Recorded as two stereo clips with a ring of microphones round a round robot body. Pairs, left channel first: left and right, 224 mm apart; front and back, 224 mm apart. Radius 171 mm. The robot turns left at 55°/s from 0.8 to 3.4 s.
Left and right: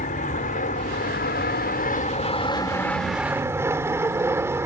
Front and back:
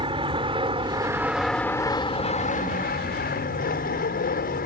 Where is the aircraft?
125° left; by 4.7 s 20° right.